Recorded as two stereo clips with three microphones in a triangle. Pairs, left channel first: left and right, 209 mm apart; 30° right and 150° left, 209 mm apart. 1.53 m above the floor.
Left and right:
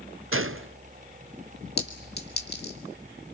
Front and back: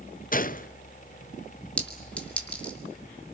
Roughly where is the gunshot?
Right.